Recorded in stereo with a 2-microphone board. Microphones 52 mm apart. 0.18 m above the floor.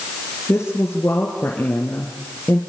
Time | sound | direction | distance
0.5 | a woman speaking | 45° left (ahead or behind) | 3.5 m